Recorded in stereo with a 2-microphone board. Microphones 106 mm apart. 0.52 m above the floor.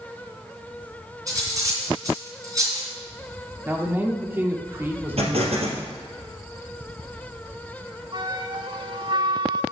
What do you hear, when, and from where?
1.3 s cutlery clinking: 30° right (ahead or behind), 3 m
3.6 s a man speaking: 20° right (ahead or behind), 1.2 m
5.2 s an explosion: 65° right (ahead or behind), 2.5 m
8.1 s a flute: 45° right (ahead or behind), 0.8 m